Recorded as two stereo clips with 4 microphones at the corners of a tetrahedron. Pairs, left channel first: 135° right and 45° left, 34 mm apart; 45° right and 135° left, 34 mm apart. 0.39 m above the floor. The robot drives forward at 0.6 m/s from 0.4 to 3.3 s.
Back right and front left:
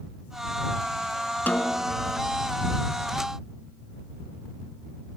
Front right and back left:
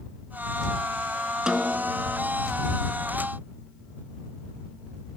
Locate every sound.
1.5 s a snare drum: 160° right, 0.8 m; by 2.2 s 165° right, 1.2 m